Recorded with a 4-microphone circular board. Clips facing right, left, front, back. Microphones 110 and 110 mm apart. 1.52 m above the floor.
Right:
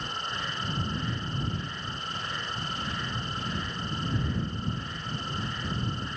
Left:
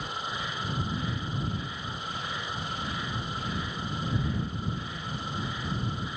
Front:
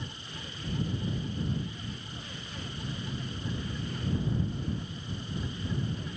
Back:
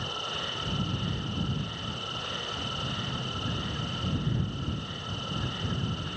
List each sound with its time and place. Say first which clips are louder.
0.0 s an insect: left 1 dB, back 7 dB; 175° left